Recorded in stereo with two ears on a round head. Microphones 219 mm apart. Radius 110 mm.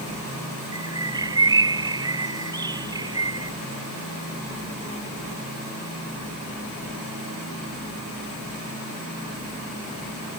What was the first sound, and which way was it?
A bird, 15° right (ahead or behind).